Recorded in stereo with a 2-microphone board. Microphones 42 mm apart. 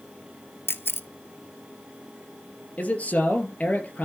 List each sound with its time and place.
0.7 s a camera shutter: 65° left (ahead or behind), 0.8 m
2.8 s a man speaking: 35° left (ahead or behind), 2.5 m